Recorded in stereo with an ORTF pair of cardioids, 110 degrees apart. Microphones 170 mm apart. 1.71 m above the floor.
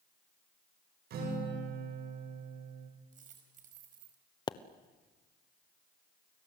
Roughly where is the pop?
Ahead left.